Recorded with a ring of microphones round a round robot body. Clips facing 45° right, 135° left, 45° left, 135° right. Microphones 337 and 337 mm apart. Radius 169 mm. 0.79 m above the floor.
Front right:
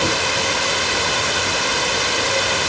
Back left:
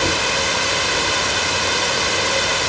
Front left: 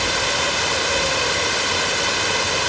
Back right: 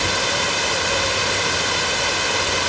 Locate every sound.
Only background noise.